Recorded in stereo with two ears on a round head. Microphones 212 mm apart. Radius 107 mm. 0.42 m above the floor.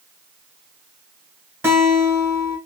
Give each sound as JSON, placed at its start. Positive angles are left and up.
{"t": 1.6, "sound": "a guitar", "side_deg": -10, "distance_m": 1.1}